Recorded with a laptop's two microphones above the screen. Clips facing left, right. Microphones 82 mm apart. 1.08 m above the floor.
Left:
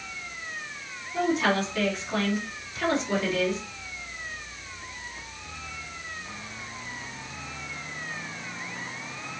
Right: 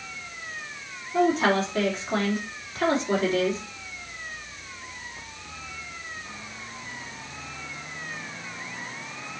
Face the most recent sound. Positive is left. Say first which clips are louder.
# right 3 dB
turn(degrees=-40)  # may be behind; listen again after turning